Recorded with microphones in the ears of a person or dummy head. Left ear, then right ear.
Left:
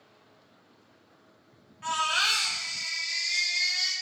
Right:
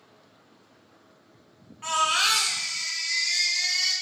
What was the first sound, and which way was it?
A baby crying, 5° left (ahead or behind).